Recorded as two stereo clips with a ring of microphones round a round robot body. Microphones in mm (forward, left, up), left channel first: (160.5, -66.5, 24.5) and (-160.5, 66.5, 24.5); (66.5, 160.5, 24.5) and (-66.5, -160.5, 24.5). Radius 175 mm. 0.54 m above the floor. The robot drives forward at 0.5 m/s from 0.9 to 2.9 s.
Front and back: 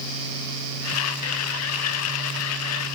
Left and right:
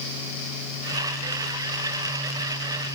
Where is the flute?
I don't hear a flute.